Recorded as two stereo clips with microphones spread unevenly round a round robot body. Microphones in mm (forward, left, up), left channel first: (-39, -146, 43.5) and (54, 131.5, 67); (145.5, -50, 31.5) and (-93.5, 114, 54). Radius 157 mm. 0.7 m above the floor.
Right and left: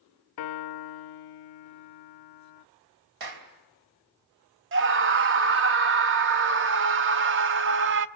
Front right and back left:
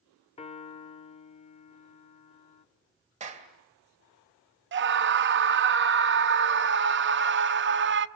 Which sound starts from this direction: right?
A piano, at 0.4 s.